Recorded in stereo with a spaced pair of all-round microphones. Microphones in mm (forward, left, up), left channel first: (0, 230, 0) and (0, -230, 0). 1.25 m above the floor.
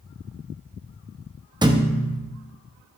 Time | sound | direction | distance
1.6 | a thud | 10° right (ahead or behind) | 0.7 m